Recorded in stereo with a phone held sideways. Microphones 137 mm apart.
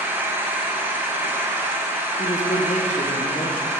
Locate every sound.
0.0 s an engine running: 15° right (ahead or behind), 0.9 m
2.2 s a man speaking: 60° left (ahead or behind), 1.0 m